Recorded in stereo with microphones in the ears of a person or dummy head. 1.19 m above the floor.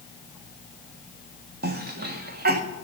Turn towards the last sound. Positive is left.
turn(degrees=-45)  # may be behind; listen again after turning